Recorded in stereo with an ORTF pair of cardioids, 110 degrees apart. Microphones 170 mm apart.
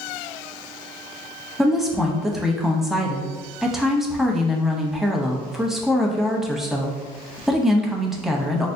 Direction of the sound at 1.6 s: Straight ahead.